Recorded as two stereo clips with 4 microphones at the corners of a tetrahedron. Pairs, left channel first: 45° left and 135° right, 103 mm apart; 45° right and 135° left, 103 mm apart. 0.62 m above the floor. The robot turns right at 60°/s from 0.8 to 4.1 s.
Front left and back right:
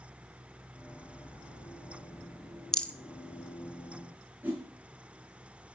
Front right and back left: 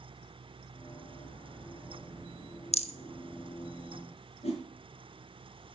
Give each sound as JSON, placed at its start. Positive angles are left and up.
{"t": 2.7, "sound": "a rattle", "azimuth_deg": -40, "distance_m": 0.7}
{"t": 4.4, "sound": "a whoosh", "azimuth_deg": -60, "distance_m": 3.5}